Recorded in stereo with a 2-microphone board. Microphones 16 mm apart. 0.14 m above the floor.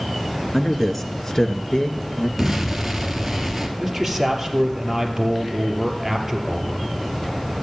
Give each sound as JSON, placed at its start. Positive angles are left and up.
{"t": 0.5, "sound": "a man speaking", "side_deg": 10, "distance_m": 1.7}
{"t": 2.4, "sound": "an explosion", "side_deg": -20, "distance_m": 1.7}
{"t": 3.8, "sound": "a man speaking", "side_deg": -15, "distance_m": 3.0}